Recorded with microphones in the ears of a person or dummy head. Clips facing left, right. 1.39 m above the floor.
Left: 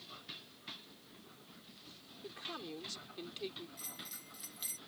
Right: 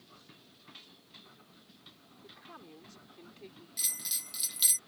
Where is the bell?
75° right (ahead or behind).